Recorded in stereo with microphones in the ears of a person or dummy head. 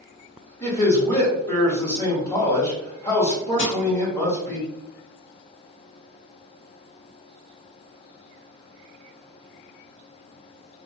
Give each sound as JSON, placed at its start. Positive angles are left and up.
{"t": 0.6, "sound": "a man speaking", "side_deg": 15, "distance_m": 1.3}
{"t": 3.6, "sound": "crushing", "side_deg": 55, "distance_m": 0.6}